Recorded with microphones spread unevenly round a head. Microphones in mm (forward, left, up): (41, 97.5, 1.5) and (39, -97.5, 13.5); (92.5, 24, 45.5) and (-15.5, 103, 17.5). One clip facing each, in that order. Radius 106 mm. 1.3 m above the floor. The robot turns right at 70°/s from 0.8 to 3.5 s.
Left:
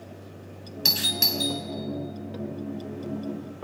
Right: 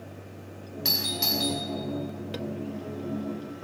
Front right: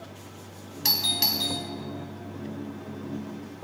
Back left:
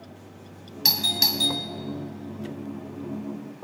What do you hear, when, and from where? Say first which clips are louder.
0.8 s a doorbell: even, back left 2 dB; 110° left, 1.3 m; by 1.6 s 160° left, 1.3 m